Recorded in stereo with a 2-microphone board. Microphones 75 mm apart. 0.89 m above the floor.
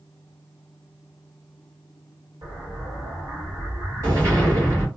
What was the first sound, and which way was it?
An explosion, 45° right (ahead or behind).